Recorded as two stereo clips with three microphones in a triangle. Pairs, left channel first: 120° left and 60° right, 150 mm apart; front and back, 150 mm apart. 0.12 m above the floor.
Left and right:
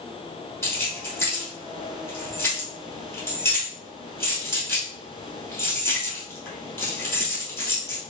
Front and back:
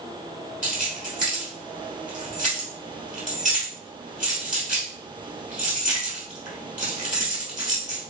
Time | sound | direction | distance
0.6 | keys jangling | 165° right | 2 m